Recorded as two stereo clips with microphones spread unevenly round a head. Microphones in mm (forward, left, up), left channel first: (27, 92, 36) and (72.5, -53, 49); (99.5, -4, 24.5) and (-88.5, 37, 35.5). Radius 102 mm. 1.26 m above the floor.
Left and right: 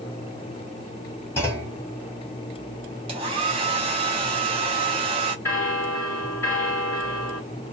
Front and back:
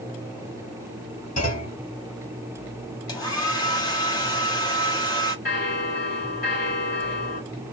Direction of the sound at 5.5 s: 30° left.